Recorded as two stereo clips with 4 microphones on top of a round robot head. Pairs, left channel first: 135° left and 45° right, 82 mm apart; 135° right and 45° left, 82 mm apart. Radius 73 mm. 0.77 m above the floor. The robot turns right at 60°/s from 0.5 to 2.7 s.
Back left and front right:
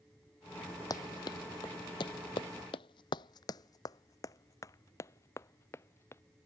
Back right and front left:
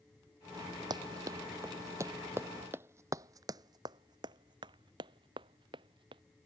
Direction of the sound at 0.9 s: 85° left.